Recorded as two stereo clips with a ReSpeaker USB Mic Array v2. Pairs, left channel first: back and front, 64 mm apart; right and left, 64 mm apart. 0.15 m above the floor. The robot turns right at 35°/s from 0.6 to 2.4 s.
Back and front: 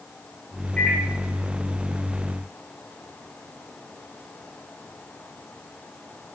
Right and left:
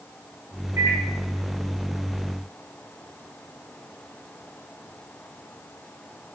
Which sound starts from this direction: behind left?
A microwave, at 0.8 s.